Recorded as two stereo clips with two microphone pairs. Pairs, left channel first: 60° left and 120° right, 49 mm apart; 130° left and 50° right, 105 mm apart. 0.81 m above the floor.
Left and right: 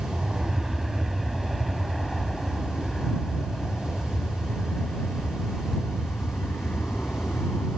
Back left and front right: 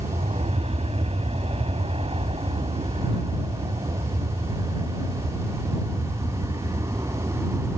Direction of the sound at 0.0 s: 40° right.